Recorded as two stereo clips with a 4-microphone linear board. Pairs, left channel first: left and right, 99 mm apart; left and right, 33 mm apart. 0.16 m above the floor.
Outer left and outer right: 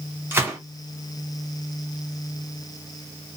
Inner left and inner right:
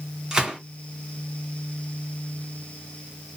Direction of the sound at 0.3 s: 20° right (ahead or behind).